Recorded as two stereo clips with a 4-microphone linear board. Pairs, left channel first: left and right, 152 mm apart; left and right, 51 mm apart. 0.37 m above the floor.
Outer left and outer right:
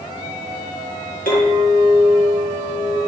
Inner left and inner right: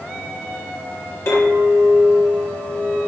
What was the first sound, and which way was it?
A clink, 75° left (ahead or behind).